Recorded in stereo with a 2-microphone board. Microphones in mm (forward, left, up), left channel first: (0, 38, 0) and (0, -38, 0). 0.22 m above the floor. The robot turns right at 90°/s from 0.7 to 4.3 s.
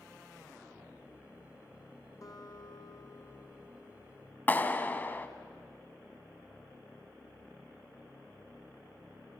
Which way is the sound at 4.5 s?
25° left (ahead or behind).